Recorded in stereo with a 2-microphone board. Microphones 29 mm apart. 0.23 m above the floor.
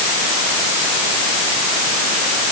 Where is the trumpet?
No trumpet in this recording.